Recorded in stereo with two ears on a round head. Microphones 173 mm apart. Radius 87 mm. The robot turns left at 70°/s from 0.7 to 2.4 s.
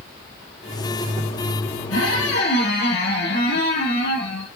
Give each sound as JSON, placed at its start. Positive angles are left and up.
{"t": 1.9, "sound": "a squeak", "azimuth_deg": 85, "distance_m": 6.0}